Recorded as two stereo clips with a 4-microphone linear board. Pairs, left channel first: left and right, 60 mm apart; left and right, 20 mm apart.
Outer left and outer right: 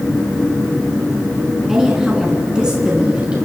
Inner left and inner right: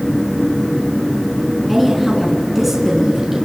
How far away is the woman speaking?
About 5 m.